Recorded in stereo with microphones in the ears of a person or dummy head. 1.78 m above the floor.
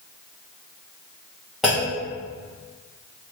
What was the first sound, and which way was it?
A clunk, centre (ahead or behind).